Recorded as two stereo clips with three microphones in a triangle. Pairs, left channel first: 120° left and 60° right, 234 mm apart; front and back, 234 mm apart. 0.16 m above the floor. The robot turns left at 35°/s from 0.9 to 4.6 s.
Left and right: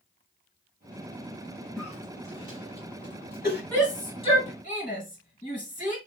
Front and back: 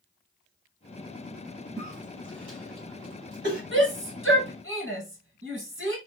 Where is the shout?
160° right, 1.9 m; by 6.0 s 170° left, 1.9 m.